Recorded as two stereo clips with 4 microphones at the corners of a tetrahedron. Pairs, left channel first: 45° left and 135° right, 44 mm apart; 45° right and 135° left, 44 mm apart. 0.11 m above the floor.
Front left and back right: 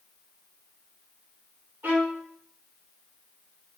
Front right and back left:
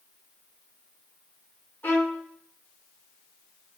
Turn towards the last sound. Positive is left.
turn(degrees=-90)